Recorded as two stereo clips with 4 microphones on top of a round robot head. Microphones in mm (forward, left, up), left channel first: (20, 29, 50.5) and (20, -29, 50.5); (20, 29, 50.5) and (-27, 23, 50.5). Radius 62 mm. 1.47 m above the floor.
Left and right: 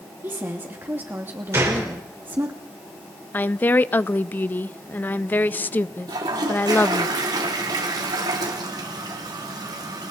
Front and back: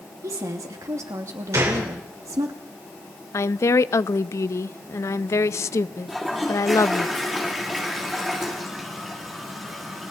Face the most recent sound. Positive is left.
turn(degrees=-85)